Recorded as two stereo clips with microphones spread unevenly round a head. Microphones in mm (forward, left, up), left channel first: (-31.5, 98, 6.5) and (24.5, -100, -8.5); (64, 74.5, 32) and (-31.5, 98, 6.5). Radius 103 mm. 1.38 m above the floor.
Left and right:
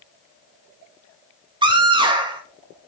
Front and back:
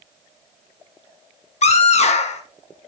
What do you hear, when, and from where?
1.6 s a scream: 5° right, 2 m